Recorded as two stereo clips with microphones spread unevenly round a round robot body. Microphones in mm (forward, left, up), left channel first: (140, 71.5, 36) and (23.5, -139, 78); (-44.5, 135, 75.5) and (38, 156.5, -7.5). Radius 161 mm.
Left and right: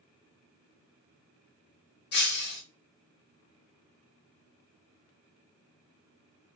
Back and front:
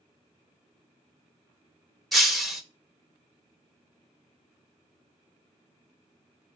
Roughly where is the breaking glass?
Behind left.